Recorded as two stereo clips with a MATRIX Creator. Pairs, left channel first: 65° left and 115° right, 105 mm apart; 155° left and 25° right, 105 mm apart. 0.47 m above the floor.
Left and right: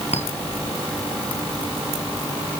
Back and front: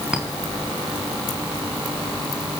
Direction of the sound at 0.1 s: 60° left.